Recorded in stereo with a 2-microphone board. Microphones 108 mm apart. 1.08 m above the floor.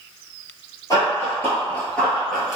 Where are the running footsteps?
35° left (ahead or behind), 1.2 m; by 2.6 s 10° right (ahead or behind), 1.1 m.